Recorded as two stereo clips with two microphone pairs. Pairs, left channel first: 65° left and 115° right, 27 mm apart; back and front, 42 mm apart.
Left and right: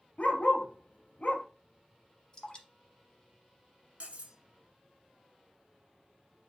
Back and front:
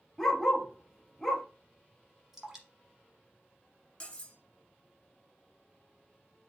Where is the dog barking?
95° left, 1.0 m.